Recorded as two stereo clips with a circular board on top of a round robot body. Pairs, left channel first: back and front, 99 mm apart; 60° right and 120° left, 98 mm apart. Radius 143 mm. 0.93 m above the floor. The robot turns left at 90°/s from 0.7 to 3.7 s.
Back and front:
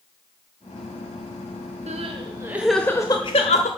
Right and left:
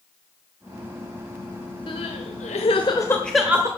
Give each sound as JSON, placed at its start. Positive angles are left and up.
{"t": 1.9, "sound": "crying", "azimuth_deg": -15, "distance_m": 0.8}